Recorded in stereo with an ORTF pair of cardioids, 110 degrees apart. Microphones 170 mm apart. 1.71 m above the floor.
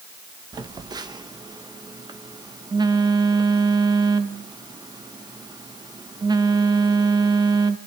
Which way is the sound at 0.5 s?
25° right.